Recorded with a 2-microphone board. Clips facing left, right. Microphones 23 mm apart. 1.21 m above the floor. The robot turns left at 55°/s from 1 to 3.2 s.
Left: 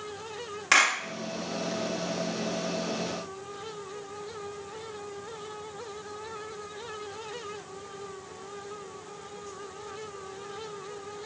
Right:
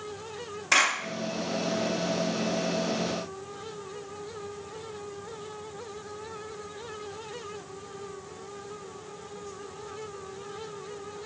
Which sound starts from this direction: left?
A clap, at 0.7 s.